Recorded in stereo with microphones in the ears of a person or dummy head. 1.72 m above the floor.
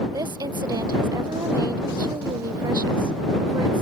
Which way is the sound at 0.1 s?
20° right (ahead or behind).